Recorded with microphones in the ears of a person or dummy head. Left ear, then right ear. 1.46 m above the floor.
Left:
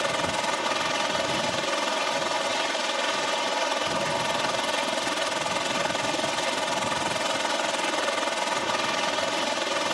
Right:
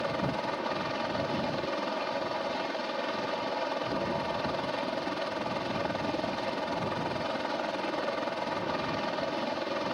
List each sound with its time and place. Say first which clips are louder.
0.0 s a helicopter: left 6 dB; 55° left (ahead or behind)